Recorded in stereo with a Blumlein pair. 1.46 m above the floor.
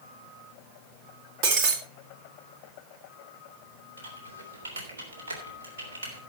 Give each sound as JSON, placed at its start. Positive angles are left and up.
{"t": 1.4, "sound": "breaking glass", "azimuth_deg": -40, "distance_m": 1.9}
{"t": 4.0, "sound": "typing on a keyboard", "azimuth_deg": -70, "distance_m": 3.5}